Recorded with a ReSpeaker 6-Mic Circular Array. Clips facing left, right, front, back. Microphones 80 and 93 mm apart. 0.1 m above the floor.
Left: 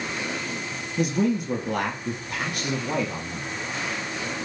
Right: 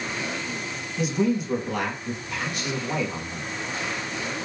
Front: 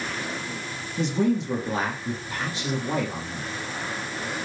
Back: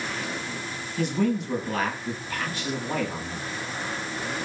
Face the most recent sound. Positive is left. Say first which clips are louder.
# even, front 2 dB
turn(degrees=65)